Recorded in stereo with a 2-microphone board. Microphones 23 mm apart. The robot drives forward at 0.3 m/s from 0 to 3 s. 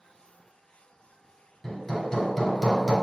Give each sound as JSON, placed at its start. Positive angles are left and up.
{"t": 1.6, "sound": "hammering", "side_deg": 25, "distance_m": 1.6}